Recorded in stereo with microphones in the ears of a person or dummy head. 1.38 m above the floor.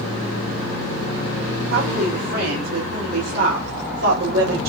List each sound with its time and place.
1.7 s a woman speaking: 80° right, 4 m